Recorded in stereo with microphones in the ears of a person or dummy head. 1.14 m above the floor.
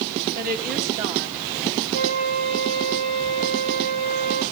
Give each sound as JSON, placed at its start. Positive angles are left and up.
{"t": 0.3, "sound": "a woman speaking", "side_deg": -50, "distance_m": 1.6}
{"t": 1.9, "sound": "a flute", "side_deg": -50, "distance_m": 6.0}